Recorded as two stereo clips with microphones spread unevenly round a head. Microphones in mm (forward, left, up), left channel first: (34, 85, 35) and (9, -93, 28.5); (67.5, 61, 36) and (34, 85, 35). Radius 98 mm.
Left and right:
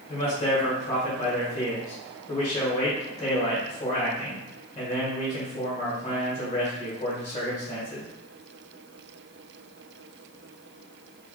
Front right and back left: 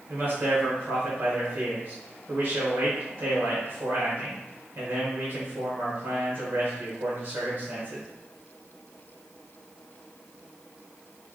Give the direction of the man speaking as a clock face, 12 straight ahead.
8 o'clock.